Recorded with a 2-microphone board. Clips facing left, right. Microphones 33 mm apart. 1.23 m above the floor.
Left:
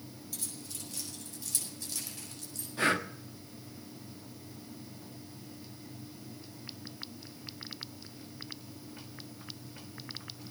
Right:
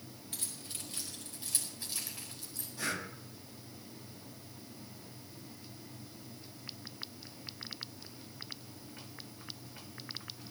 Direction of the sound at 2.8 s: 45° left (ahead or behind).